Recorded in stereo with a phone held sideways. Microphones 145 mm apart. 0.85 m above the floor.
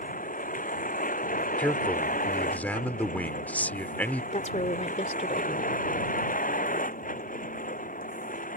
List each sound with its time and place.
0.0 s a vehicle: 70° left (ahead or behind)
1.6 s a man speaking: 10° left (ahead or behind)
4.3 s a woman speaking: 55° left (ahead or behind)